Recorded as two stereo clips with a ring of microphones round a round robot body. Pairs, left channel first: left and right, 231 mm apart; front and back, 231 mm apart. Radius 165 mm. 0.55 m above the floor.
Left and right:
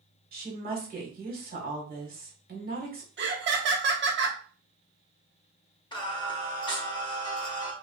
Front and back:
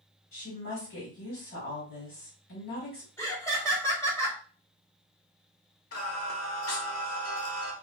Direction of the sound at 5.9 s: 20° left.